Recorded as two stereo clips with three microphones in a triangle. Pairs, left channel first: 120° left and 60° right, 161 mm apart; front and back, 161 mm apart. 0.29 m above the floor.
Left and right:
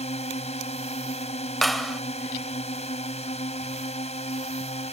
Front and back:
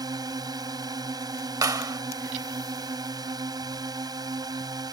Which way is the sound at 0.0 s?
130° left.